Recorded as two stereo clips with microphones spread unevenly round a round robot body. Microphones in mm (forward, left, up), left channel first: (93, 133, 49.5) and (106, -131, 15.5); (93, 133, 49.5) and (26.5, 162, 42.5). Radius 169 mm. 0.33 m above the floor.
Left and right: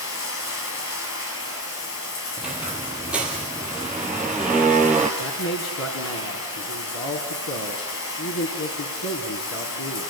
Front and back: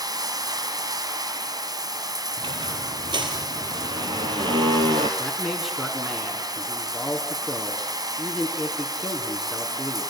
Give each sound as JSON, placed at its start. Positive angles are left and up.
{"t": 0.0, "sound": "running water", "azimuth_deg": 140, "distance_m": 3.0}
{"t": 2.4, "sound": "a squeak", "azimuth_deg": -175, "distance_m": 1.8}
{"t": 5.2, "sound": "a man speaking", "azimuth_deg": 70, "distance_m": 3.5}